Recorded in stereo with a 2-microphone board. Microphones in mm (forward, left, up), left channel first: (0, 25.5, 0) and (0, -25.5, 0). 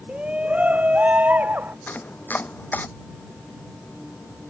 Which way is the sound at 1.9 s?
35° left (ahead or behind).